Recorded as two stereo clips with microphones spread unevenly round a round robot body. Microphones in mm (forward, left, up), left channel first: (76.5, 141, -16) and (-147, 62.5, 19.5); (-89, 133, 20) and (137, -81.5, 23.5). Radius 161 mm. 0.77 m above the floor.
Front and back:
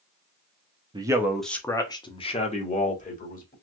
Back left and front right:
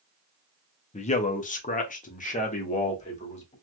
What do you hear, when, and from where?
0.9 s a man speaking: 140° left, 0.6 m; by 3.5 s 70° left, 1.7 m